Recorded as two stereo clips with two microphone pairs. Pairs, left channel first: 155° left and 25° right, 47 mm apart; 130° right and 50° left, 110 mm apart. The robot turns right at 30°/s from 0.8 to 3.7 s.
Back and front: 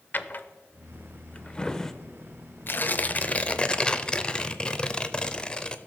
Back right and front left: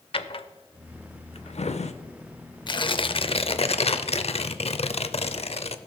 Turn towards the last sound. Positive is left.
turn(degrees=-145)